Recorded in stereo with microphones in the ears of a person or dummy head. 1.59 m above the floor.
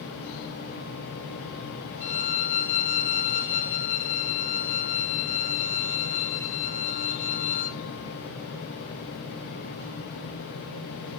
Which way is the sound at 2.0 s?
45° left (ahead or behind).